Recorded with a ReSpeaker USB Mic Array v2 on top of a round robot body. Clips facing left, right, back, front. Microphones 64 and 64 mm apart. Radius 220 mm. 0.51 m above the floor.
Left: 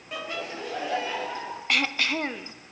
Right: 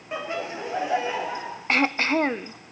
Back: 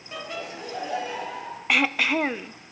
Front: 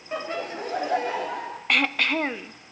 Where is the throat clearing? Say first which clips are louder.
Right 5 dB, back 1 dB; 100° right, 0.5 m.